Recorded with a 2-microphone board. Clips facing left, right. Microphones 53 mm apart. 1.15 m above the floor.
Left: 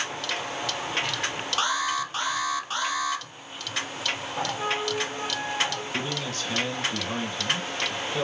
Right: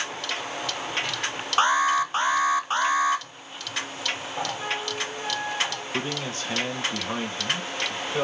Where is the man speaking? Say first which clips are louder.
Right 1 dB; 30° right (ahead or behind), 1.8 m.